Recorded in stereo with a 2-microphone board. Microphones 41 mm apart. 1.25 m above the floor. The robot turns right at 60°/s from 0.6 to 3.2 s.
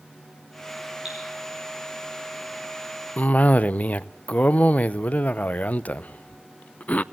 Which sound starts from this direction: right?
Dripping, at 1.1 s.